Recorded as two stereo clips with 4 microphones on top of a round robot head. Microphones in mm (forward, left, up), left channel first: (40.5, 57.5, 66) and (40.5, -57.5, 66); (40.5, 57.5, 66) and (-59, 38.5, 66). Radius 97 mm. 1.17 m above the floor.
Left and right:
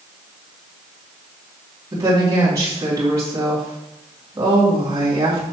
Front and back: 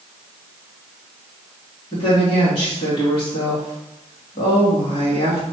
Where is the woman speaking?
25° right, 2.5 m.